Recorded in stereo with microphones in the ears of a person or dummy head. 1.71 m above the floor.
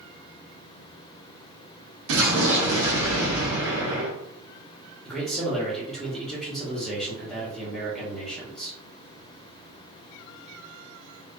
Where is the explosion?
75° right (ahead or behind), 0.8 m.